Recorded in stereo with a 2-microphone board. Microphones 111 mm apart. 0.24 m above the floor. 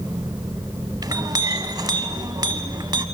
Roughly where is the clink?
Right.